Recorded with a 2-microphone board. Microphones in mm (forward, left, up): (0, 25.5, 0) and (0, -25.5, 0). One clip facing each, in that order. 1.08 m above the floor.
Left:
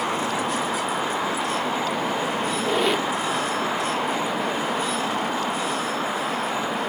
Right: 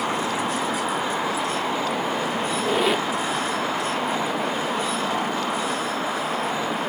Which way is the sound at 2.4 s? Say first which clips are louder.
Right 1 dB; centre (ahead or behind).